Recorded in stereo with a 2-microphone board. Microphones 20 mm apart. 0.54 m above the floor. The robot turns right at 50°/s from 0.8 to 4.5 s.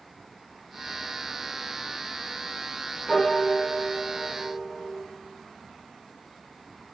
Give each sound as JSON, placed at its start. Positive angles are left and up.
{"t": 3.1, "sound": "a piano", "side_deg": 20, "distance_m": 0.6}